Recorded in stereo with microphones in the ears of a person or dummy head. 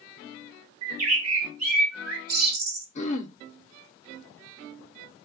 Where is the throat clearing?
35° left (ahead or behind), 0.6 m.